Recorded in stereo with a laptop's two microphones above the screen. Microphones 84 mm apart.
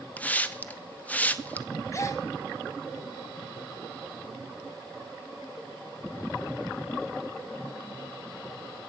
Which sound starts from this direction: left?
A gasp, at 1.9 s.